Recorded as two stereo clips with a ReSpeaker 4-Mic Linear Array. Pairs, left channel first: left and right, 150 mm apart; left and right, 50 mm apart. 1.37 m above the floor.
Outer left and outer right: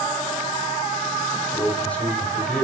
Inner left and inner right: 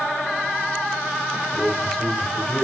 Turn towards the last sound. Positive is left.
turn(degrees=10)  # may be behind; listen again after turning